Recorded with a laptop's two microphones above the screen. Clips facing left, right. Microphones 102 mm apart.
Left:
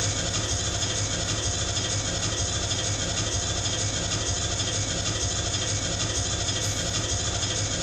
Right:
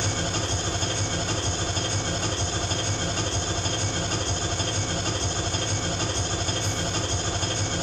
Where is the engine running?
45° right (ahead or behind), 1.4 m.